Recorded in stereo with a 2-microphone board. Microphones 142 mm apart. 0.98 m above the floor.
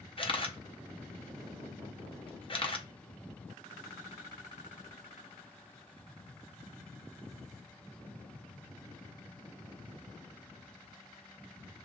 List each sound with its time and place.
0.2 s a camera shutter: 35° left (ahead or behind), 0.6 m